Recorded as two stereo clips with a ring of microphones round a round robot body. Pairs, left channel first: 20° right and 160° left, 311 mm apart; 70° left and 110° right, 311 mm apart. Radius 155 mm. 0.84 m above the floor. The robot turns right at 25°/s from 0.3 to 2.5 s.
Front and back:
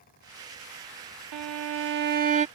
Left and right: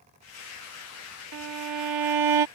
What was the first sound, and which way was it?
A violin, 160° right.